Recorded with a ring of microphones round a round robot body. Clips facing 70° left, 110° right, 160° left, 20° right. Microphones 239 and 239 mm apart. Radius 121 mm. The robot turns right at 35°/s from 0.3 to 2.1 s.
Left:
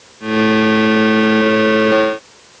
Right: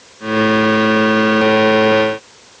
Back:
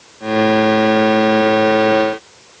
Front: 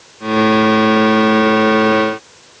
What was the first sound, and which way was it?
Only background noise.